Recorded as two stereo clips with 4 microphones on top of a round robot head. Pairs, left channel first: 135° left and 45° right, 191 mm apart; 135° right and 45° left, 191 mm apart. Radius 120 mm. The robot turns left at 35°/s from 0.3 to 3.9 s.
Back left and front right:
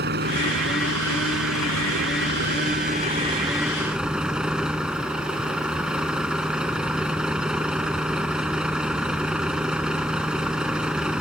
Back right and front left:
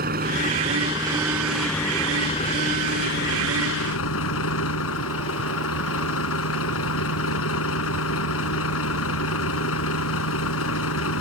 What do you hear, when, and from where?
0.0 s a vehicle: 5° right; by 11.2 s 130° right